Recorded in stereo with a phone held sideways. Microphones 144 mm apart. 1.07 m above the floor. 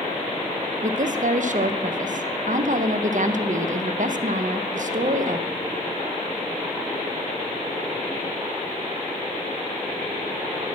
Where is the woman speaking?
60° right (ahead or behind), 0.6 m.